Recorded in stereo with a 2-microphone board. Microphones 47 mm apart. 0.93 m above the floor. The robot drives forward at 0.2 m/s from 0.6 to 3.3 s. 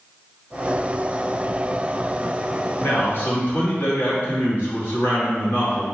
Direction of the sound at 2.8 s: 55° left (ahead or behind).